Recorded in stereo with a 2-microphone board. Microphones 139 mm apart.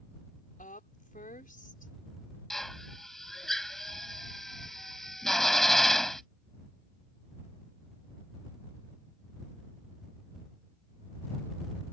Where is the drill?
Centre (ahead or behind).